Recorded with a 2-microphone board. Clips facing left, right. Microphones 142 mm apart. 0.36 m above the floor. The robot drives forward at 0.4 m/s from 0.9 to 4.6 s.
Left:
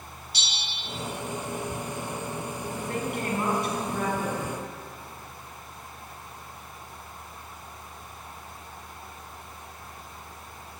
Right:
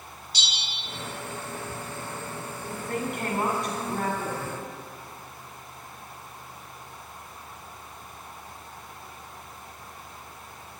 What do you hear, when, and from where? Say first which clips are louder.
0.3 s a bell: even; 55° left (ahead or behind), 1.2 m
2.7 s a woman speaking: right 1 dB; 50° right (ahead or behind), 2.5 m; by 4.6 s 45° right (ahead or behind), 3 m